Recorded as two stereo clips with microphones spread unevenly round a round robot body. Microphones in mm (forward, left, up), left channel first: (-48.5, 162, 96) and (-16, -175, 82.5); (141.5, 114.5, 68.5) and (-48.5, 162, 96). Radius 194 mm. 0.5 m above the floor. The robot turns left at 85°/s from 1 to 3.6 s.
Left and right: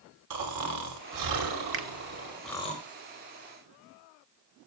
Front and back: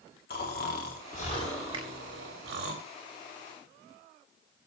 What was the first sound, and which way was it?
Snoring, 50° right.